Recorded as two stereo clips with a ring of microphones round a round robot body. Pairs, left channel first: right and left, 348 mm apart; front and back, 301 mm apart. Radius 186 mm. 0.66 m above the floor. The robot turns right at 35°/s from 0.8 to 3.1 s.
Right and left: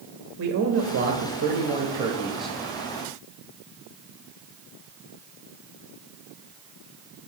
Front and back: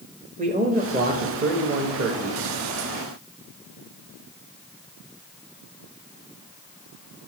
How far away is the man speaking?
About 1.3 m.